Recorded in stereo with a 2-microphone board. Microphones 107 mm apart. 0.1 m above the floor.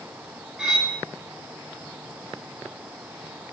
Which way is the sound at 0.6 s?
5° right (ahead or behind).